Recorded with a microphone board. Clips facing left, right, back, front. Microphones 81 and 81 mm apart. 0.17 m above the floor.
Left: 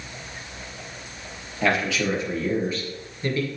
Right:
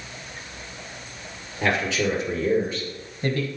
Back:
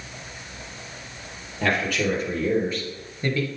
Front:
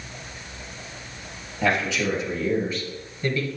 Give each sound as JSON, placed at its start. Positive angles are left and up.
{"t": 1.6, "sound": "a man speaking", "azimuth_deg": -150, "distance_m": 4.0}